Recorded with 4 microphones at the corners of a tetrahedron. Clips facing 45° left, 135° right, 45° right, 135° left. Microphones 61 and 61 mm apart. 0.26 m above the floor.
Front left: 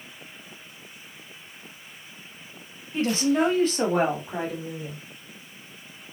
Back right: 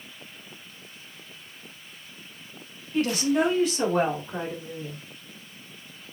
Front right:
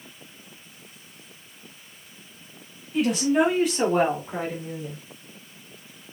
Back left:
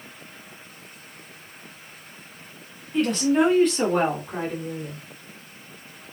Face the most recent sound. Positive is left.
turn(degrees=35)